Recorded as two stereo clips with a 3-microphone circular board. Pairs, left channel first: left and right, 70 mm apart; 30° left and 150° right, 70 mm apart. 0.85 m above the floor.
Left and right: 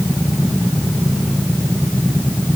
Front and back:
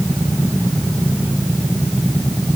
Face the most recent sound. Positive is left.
No sound to turn to.